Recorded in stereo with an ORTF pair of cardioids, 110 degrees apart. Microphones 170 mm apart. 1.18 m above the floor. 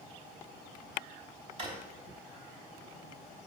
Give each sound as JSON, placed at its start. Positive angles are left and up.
{"t": 1.6, "sound": "a drawer", "azimuth_deg": -40, "distance_m": 3.0}